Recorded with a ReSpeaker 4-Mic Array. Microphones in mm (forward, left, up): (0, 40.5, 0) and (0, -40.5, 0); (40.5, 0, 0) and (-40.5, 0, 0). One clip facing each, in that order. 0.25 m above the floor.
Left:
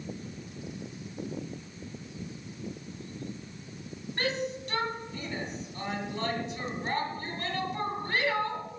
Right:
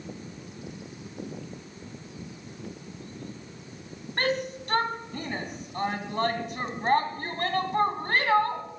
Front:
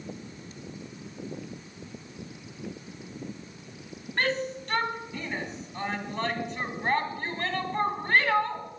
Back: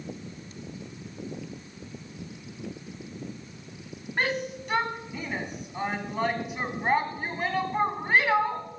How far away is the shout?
About 1.8 m.